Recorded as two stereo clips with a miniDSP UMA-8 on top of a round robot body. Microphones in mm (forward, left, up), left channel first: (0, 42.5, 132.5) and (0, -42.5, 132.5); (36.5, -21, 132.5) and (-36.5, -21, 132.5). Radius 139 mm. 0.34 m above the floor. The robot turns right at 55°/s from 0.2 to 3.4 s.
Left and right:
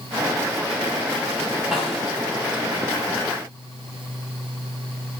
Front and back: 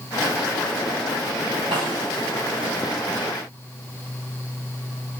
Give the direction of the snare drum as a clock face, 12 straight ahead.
6 o'clock.